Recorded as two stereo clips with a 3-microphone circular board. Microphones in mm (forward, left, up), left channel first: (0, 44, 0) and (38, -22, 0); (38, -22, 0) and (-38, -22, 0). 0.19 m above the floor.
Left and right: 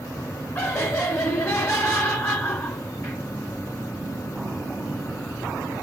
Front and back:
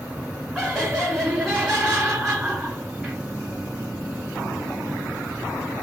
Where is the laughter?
95° left, 1.4 m.